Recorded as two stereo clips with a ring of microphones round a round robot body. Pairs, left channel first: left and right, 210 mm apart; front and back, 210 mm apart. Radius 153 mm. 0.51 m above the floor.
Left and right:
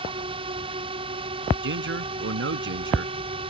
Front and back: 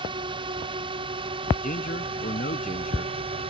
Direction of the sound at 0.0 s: 135° right.